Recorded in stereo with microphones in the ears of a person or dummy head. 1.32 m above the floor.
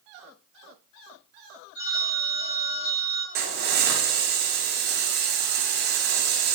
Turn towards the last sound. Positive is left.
turn(degrees=-50)  # may be behind; listen again after turning